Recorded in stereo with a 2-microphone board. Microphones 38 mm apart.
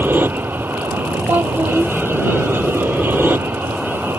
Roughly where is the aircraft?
Right.